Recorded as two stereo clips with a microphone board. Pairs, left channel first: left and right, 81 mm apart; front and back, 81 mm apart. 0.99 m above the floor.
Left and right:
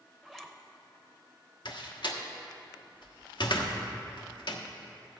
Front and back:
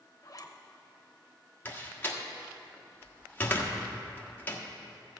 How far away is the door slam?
About 1.2 m.